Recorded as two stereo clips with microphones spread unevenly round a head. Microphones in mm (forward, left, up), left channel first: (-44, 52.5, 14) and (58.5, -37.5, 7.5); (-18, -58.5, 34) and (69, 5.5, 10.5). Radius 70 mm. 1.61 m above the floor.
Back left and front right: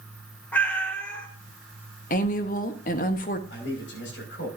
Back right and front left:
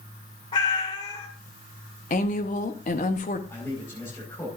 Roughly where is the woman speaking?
Behind.